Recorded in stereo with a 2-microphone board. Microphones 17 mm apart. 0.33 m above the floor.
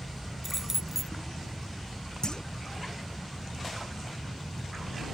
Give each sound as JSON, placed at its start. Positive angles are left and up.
{"t": 0.4, "sound": "keys jangling", "side_deg": -20}
{"t": 2.2, "sound": "a clunk", "side_deg": 40}